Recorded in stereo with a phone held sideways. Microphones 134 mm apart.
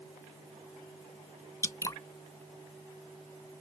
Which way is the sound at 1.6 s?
25° left (ahead or behind).